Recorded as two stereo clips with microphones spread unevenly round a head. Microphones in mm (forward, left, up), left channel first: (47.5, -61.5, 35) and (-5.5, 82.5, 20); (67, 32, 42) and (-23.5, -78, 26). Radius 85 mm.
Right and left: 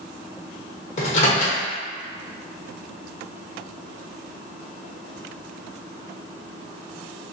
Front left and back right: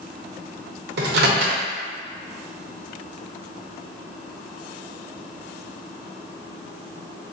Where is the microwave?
120° right, 0.7 m.